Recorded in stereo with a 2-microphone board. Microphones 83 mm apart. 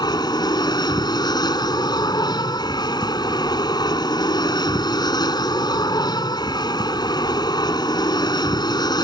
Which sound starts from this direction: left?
An aircraft, at 0.0 s.